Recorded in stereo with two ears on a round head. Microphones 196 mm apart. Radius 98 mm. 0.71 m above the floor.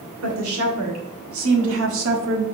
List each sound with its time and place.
0.2 s a woman speaking: 75° right (ahead or behind), 2 m; by 2.5 s 60° right (ahead or behind), 1.2 m